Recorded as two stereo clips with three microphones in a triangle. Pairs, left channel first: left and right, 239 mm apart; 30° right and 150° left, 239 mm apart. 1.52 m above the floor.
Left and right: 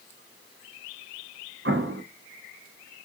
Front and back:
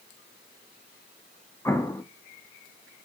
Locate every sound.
1.6 s an explosion: 110° right, 0.6 m